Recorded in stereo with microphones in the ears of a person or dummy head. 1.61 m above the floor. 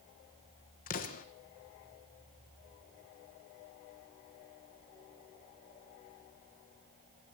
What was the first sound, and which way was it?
An explosion, 50° left (ahead or behind).